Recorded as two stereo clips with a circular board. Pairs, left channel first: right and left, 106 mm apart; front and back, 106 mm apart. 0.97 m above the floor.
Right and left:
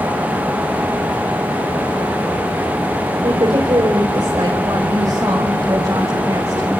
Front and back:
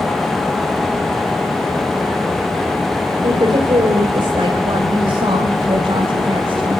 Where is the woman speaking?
135° left, 3.5 m; by 6.8 s 150° left, 5.5 m.